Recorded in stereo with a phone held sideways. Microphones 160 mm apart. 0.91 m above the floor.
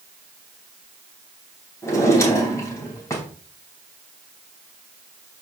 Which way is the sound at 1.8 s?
20° left (ahead or behind).